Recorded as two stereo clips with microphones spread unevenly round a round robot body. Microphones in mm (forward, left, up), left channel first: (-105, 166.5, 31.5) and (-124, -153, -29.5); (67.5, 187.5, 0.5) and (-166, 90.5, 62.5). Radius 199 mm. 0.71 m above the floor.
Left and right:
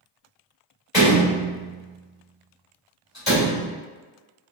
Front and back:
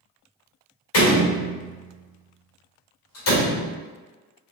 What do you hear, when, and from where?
0.9 s a door slam: 5° right, 2.0 m